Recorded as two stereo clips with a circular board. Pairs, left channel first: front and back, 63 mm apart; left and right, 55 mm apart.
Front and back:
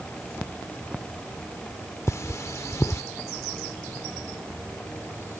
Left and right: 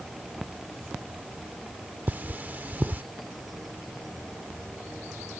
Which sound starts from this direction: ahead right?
Cutlery clinking, at 2.1 s.